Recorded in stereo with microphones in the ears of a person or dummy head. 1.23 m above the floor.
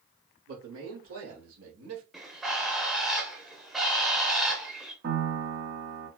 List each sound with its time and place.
0.5 s a man speaking: 85° right, 3.5 m; by 2.0 s 80° right, 1.8 m
2.1 s a bird: centre (ahead or behind), 0.8 m
5.0 s a piano: 65° right (ahead or behind), 2 m